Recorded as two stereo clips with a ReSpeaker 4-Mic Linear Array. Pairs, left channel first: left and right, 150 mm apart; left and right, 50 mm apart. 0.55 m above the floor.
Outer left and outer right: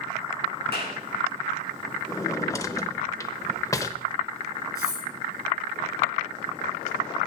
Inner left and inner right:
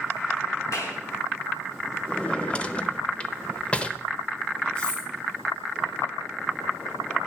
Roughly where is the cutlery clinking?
Left.